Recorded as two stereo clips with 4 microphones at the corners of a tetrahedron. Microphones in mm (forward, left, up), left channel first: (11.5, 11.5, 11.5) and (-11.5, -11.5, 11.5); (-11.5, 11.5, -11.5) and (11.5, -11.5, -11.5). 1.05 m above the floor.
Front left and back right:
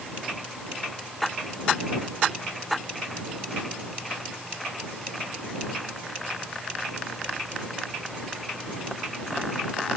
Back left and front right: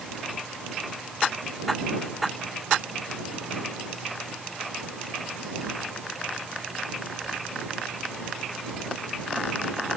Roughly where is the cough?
No cough in this recording.